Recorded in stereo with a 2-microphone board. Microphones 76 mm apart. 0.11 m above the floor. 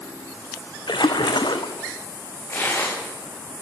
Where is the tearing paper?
30° left (ahead or behind), 7.5 m.